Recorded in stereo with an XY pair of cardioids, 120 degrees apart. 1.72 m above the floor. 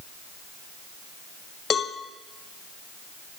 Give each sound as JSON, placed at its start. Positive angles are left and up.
{"t": 1.7, "sound": "a cowbell", "azimuth_deg": 40, "distance_m": 1.0}